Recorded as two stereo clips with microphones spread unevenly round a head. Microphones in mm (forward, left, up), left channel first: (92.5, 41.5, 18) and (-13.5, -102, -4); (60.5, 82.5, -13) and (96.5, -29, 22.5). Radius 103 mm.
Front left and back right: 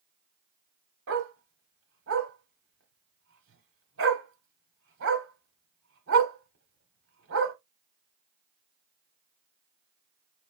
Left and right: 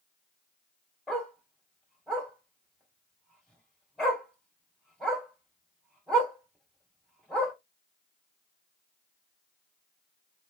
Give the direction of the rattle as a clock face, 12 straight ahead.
I don't hear a rattle.